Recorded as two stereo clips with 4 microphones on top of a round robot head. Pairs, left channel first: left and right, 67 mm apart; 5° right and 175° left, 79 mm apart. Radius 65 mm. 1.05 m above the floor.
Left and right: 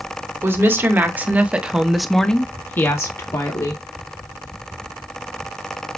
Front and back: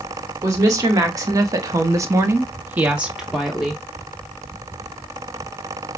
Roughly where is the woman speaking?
Behind right.